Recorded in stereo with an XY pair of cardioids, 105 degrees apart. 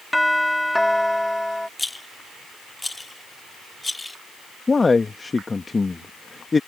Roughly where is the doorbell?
Ahead.